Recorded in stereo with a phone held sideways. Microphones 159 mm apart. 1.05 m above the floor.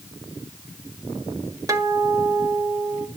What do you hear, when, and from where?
1.7 s a guitar: 20° right (ahead or behind), 1.4 m